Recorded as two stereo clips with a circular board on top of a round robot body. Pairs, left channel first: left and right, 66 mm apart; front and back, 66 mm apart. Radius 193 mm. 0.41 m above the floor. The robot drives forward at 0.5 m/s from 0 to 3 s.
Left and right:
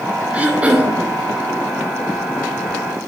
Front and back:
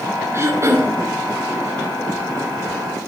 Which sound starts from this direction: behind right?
Throat clearing, at 0.3 s.